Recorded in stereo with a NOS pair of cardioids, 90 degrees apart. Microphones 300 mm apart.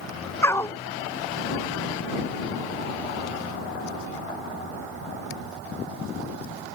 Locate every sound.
0.4 s a dog barking: 10° left